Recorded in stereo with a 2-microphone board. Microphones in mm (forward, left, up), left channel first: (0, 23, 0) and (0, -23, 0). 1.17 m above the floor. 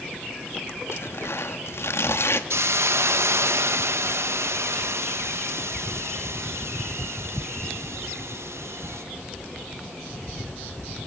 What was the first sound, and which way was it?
Tearing paper, 70° left (ahead or behind).